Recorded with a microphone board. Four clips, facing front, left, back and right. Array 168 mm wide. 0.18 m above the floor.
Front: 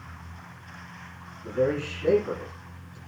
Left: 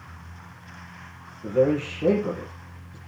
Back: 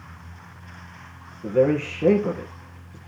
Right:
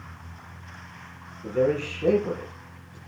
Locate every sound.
1.4 s a man speaking: 160° left, 4 m